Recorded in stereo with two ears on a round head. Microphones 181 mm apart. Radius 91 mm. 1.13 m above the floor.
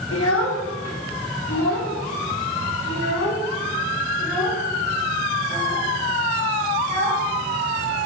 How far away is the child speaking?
About 1.8 m.